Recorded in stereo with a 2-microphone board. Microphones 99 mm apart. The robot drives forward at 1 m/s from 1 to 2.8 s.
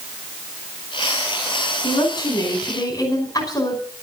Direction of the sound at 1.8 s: 45° left (ahead or behind).